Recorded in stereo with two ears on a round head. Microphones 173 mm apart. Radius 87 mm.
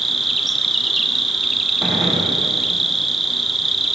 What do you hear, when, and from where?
0.0 s an insect: centre (ahead or behind), 1.1 m
1.8 s a gunshot: centre (ahead or behind), 7.5 m